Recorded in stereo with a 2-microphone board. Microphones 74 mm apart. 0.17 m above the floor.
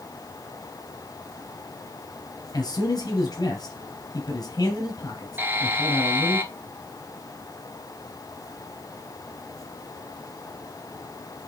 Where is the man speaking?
60° left (ahead or behind), 3 m.